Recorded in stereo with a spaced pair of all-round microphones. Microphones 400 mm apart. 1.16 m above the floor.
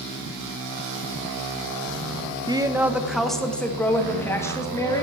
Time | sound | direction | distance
2.5 | a woman speaking | 10° right (ahead or behind) | 0.6 m